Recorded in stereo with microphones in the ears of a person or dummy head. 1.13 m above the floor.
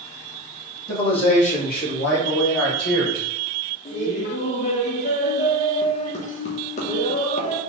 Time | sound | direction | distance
0.9 | a man speaking | 30° left (ahead or behind) | 1.9 m
3.9 | laughter | 45° left (ahead or behind) | 1.0 m